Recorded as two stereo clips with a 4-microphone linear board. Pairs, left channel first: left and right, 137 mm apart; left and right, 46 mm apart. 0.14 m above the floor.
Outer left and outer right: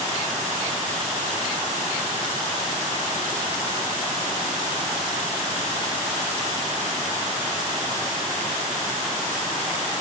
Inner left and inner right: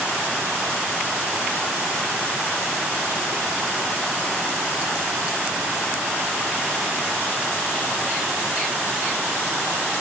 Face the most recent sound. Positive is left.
No sound to turn to.